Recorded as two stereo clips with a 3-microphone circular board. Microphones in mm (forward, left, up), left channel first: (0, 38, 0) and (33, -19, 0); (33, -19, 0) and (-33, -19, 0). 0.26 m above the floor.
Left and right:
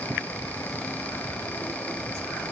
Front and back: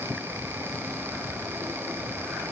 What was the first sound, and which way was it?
Only background noise.